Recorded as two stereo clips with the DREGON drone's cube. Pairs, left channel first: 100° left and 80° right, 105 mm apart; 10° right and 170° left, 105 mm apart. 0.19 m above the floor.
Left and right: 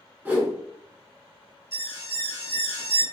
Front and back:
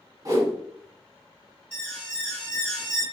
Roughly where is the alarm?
Right.